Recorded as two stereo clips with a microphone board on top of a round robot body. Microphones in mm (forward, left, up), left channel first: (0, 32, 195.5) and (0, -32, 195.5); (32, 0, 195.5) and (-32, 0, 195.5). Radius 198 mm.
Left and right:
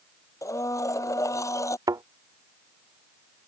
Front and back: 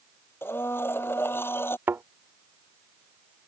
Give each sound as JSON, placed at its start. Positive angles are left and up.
{"t": 0.4, "sound": "a blender", "azimuth_deg": 55}
{"t": 1.9, "sound": "a thud", "azimuth_deg": -120}